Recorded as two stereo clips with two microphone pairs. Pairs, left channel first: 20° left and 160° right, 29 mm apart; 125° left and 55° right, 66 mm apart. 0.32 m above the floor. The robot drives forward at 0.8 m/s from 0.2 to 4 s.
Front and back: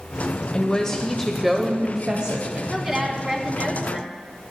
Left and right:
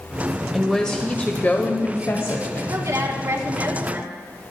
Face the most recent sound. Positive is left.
turn(degrees=-110)